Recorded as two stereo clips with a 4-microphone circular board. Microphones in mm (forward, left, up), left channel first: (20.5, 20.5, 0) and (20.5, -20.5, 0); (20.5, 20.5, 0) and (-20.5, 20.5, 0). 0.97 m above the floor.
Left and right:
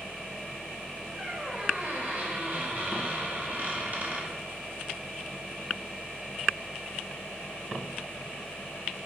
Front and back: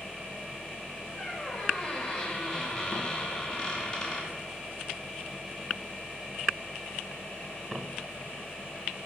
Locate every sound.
1.1 s a squeak: 70° right, 1.0 m